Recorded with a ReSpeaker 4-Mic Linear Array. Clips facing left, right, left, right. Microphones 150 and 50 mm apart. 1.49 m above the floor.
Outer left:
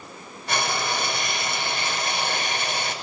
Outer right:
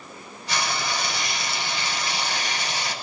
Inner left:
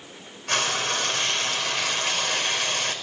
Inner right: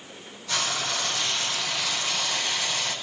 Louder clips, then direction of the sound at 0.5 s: Outer left 2 dB, inner left 3 dB; 55° left (ahead or behind).